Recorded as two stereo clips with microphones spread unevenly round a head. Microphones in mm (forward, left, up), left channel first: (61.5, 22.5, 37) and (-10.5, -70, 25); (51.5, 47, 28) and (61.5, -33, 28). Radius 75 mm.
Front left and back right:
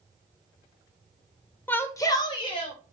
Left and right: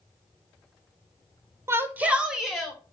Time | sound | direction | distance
1.7 | a shout | 25° right | 0.9 m